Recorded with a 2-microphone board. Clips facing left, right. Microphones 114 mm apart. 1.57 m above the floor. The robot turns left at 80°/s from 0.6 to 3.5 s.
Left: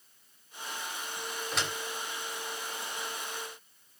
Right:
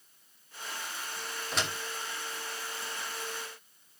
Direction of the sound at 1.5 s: 5° left (ahead or behind).